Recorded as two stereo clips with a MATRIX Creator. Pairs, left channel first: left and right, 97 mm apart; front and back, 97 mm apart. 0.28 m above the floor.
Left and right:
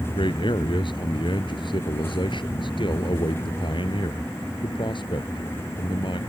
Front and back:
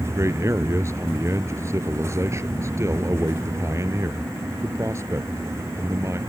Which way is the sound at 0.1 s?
120° left.